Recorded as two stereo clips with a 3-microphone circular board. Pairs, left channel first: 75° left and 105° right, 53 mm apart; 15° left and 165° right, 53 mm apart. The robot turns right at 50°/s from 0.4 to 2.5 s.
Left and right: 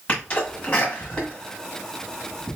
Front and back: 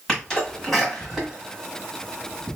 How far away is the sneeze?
About 1.3 m.